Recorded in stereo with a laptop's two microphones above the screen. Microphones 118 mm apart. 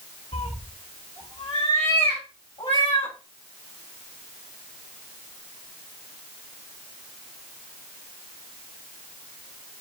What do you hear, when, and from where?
0.3 s a cat meowing: 65° left (ahead or behind), 1.3 m; by 3.1 s 45° left (ahead or behind), 3 m